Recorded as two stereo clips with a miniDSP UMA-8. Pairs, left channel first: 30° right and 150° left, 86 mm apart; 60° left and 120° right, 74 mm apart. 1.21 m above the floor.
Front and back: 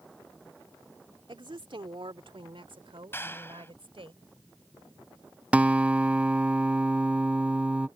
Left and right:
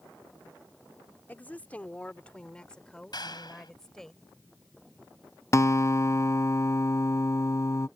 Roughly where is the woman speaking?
Behind left.